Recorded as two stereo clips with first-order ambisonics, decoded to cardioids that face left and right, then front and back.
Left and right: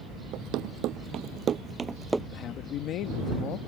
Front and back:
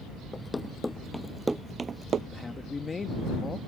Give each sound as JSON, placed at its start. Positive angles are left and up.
{"t": 0.3, "sound": "running footsteps", "azimuth_deg": -70}
{"t": 2.3, "sound": "a man speaking", "azimuth_deg": 70}